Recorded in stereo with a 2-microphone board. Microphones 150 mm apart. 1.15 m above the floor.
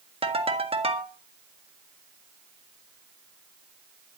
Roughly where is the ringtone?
Right.